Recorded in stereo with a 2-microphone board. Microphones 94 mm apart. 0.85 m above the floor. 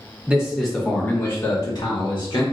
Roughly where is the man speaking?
Centre.